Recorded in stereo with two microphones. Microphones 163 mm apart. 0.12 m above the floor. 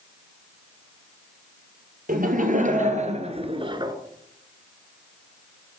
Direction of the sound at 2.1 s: 60° right (ahead or behind).